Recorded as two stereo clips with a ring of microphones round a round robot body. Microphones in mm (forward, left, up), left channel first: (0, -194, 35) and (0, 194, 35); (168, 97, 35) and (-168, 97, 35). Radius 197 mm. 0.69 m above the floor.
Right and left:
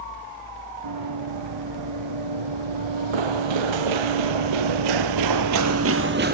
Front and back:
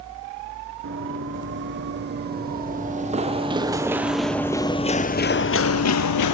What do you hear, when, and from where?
0.8 s running footsteps: 125° left, 3 m; by 6.3 s 25° left, 1.4 m